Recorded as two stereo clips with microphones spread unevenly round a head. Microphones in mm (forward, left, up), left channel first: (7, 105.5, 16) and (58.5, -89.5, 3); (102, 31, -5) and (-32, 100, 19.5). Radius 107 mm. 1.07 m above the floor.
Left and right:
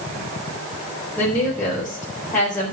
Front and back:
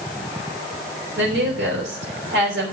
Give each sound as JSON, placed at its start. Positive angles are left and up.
{"t": 1.2, "sound": "a woman speaking", "azimuth_deg": -175, "distance_m": 4.0}